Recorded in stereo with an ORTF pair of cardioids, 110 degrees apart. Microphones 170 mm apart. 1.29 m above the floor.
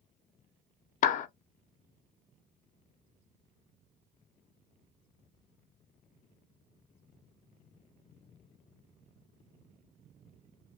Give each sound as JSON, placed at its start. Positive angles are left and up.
{"t": 1.0, "sound": "a clap", "azimuth_deg": 50, "distance_m": 0.5}